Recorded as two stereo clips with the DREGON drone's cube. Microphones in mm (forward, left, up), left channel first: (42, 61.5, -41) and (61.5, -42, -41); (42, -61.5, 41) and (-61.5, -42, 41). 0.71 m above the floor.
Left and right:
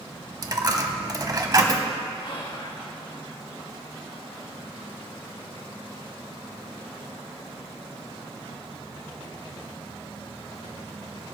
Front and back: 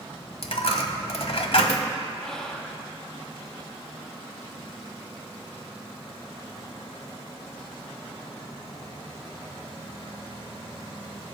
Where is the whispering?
70° left, 3 m.